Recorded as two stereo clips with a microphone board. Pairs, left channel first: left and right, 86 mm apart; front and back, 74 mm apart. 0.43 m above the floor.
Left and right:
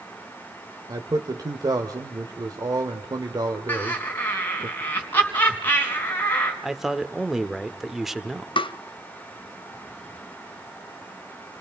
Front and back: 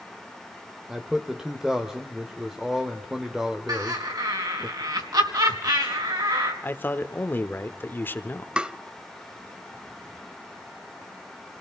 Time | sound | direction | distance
0.9 | a man speaking | 100° right | 1.3 m
3.7 | laughter | 155° left | 4.5 m
6.6 | a man speaking | 10° right | 1.1 m
8.6 | tapping | 105° left | 0.6 m